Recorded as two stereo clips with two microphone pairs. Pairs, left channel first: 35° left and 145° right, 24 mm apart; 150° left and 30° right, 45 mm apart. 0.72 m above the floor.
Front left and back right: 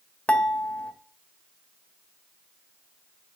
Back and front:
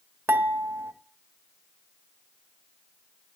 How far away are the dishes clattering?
About 1.6 m.